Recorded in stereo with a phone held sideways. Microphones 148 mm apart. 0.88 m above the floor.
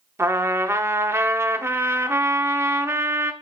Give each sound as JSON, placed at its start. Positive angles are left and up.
{"t": 0.2, "sound": "a trumpet", "side_deg": -15, "distance_m": 0.6}